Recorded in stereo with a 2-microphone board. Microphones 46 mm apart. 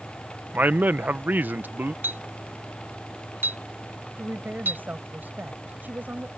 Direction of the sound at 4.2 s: 40° right (ahead or behind).